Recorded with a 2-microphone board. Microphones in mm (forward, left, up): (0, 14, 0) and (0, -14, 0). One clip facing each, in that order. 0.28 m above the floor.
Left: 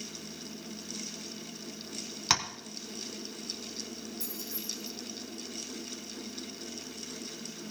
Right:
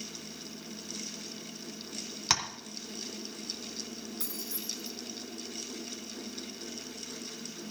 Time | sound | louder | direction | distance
2.3 | tapping | left 1 dB | 5° left (ahead or behind) | 1.5 m
4.2 | keys jangling | even | 65° right (ahead or behind) | 2.5 m